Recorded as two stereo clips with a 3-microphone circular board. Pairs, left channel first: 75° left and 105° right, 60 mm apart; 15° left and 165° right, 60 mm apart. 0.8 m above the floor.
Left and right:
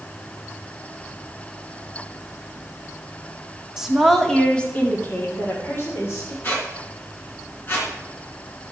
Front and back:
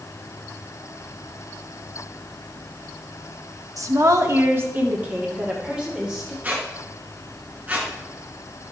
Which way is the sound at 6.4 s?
130° left.